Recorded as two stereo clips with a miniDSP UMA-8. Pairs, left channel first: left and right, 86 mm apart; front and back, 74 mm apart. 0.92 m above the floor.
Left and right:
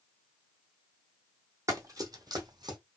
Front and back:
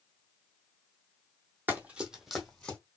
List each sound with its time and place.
1.7 s running footsteps: 125° right, 1.2 m; by 2.8 s 75° right, 1.4 m